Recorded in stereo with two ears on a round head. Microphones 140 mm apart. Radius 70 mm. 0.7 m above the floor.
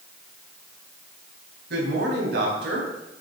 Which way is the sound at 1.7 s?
70° right (ahead or behind).